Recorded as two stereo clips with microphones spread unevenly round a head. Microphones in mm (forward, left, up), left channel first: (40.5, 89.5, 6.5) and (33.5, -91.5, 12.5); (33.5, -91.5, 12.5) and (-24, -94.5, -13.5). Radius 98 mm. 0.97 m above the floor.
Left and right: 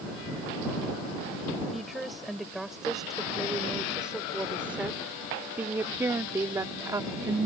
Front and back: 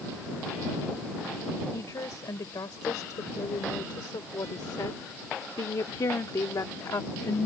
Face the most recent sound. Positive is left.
turn(degrees=-25)